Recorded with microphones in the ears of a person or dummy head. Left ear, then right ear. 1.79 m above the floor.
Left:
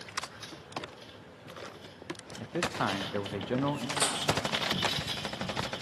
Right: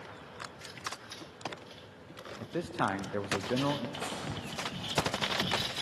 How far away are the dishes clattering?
About 1.5 m.